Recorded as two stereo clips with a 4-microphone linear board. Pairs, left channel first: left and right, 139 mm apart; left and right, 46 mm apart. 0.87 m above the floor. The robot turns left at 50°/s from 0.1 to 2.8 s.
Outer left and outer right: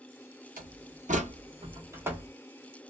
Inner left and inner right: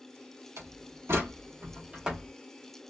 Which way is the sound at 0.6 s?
90° right.